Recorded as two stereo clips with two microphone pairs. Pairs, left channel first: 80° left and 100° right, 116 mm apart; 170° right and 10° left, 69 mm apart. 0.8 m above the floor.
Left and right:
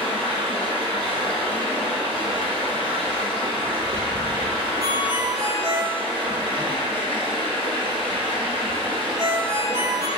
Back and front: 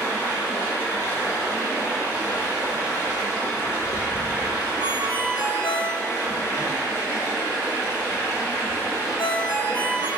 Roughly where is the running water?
Behind right.